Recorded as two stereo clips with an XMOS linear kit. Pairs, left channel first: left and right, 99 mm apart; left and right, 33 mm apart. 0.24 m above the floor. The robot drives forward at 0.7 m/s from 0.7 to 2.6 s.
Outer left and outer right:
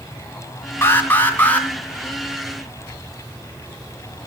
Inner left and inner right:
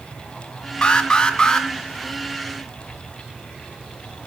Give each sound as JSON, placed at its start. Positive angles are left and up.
{"t": 0.8, "sound": "an alarm", "side_deg": 25, "distance_m": 1.2}